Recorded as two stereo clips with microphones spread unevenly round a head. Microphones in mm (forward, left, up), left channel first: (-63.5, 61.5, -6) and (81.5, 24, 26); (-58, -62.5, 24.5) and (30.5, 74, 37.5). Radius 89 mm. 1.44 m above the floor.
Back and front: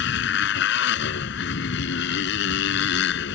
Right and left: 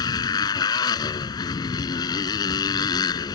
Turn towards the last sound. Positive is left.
turn(degrees=170)